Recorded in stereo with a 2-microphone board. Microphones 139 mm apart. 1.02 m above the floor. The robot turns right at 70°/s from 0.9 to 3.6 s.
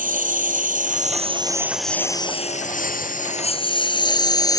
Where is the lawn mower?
75° right (ahead or behind); by 4.6 s 25° left (ahead or behind).